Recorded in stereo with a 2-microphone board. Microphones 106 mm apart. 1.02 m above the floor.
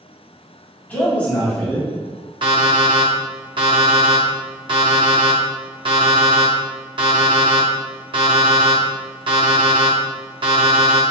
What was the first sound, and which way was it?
A man speaking, 10° left (ahead or behind).